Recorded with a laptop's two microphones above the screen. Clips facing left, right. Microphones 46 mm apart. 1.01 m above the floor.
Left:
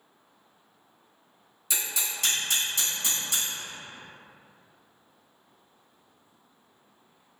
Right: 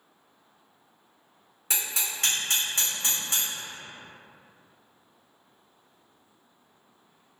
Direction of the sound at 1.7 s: 45° right (ahead or behind).